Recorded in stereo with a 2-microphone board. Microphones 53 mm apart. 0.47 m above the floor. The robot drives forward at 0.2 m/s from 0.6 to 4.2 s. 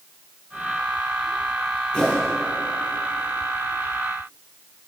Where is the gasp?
I don't hear a gasp.